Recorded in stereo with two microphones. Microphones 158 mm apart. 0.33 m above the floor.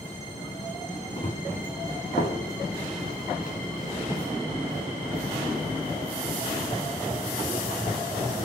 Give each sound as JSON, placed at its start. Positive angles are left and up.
{"t": 1.2, "sound": "running footsteps", "side_deg": 35, "distance_m": 1.8}